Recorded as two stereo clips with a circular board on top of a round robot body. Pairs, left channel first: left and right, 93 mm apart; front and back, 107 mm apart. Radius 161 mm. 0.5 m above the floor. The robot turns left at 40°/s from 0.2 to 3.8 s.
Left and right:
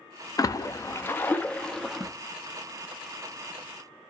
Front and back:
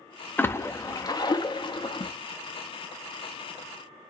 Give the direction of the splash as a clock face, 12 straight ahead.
10 o'clock.